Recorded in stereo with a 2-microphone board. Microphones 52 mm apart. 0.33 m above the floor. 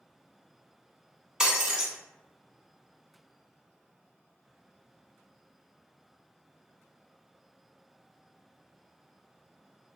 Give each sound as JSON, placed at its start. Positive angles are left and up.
{"t": 1.4, "sound": "breaking glass", "side_deg": -10, "distance_m": 0.6}